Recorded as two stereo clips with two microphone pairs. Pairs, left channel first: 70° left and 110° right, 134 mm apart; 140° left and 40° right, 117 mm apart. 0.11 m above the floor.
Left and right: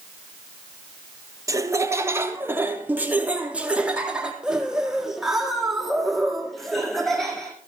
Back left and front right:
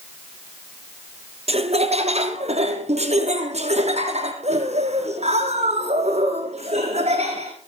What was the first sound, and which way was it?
Laughter, 50° right.